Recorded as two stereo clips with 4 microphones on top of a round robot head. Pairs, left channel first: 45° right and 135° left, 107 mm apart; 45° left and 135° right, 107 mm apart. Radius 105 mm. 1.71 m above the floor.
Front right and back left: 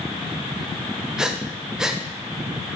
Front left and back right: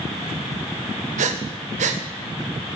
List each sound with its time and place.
1.2 s breathing: 140° right, 0.5 m